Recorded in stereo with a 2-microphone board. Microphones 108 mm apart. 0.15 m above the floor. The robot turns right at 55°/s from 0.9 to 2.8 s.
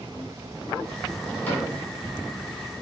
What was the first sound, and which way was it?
A cupboard door, 20° left (ahead or behind).